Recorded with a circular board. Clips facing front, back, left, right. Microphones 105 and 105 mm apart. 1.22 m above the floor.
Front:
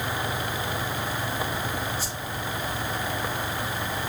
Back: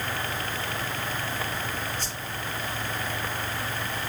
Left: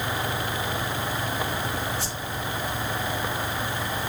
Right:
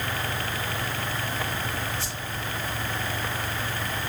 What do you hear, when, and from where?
2.0 s a whoosh: 85° left, 7 m